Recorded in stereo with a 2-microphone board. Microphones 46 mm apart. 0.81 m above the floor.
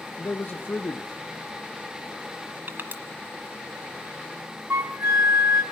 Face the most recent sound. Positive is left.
turn(degrees=-70)  # may be behind; listen again after turning